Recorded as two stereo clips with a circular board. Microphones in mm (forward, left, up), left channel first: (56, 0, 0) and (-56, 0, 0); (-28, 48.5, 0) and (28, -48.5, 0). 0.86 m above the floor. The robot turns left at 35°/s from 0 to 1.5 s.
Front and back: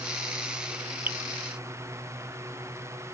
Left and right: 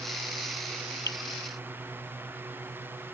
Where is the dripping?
125° left.